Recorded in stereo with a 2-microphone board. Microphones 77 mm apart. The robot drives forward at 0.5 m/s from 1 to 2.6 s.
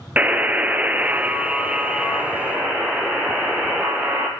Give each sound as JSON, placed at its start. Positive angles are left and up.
{"t": 0.2, "sound": "a buzzer", "side_deg": -20, "distance_m": 0.6}